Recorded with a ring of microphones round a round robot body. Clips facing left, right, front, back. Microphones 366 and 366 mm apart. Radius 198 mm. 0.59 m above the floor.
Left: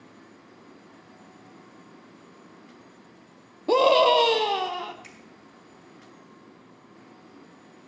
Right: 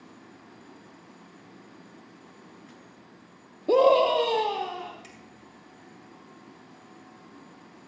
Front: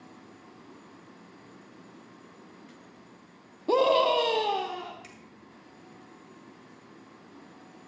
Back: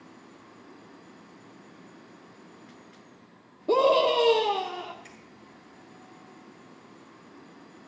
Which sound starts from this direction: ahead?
A finger snap, at 5.0 s.